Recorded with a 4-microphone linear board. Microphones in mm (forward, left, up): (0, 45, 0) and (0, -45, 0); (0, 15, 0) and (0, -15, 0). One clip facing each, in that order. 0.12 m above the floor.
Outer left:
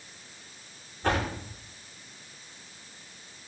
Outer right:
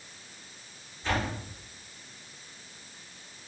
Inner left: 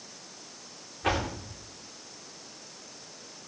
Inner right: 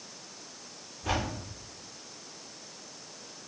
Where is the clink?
I don't hear a clink.